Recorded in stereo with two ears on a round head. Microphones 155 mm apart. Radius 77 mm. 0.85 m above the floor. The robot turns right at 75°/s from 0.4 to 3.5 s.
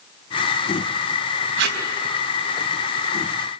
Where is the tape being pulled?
80° right, 4 m.